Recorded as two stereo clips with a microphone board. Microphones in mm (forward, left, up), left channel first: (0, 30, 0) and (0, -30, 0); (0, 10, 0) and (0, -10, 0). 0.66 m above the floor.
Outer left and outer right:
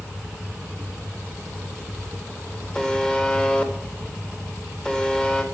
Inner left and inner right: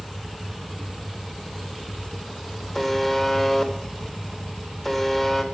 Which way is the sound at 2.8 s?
15° left (ahead or behind).